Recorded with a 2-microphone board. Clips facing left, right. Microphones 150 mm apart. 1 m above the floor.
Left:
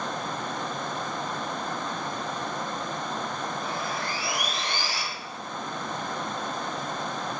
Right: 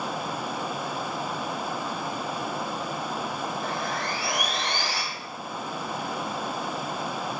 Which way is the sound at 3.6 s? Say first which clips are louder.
Right 2 dB; 65° right (ahead or behind).